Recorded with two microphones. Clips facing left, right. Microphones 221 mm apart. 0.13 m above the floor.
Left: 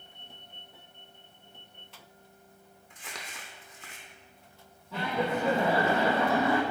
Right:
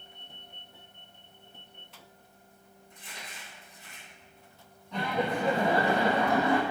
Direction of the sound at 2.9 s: 80° left.